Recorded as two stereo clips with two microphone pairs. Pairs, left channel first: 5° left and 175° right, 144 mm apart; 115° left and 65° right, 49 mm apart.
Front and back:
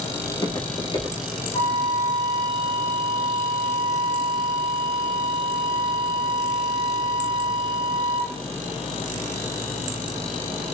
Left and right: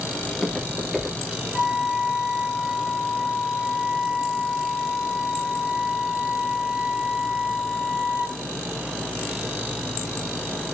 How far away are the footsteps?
About 1.8 m.